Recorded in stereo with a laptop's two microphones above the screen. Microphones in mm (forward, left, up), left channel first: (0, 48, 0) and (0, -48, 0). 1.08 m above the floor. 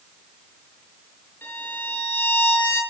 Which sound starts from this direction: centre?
A violin, at 1.4 s.